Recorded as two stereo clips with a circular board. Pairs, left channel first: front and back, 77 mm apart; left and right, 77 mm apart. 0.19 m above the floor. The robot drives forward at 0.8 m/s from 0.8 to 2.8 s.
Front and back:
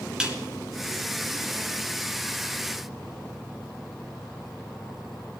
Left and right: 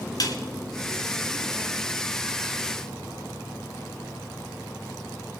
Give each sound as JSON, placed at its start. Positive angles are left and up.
{"t": 0.2, "sound": "a snare drum", "azimuth_deg": 105, "distance_m": 1.9}